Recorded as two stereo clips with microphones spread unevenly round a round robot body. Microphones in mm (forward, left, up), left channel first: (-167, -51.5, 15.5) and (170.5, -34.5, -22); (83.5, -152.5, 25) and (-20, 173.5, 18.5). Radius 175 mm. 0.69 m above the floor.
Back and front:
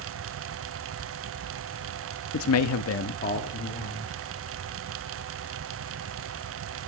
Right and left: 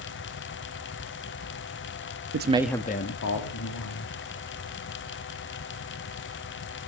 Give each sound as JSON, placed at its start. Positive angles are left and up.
{"t": 2.3, "sound": "a man speaking", "azimuth_deg": 140, "distance_m": 0.8}